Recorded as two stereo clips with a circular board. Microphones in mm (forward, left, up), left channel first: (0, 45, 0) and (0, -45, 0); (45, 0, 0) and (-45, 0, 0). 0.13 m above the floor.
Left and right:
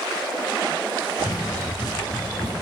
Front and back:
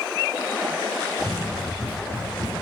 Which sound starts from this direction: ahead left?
Running footsteps, at 1.2 s.